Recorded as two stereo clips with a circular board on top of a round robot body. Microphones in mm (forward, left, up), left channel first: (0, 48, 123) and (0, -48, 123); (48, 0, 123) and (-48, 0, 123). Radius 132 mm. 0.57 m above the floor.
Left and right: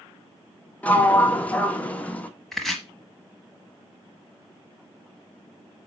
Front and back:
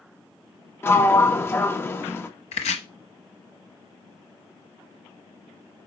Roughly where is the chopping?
Ahead.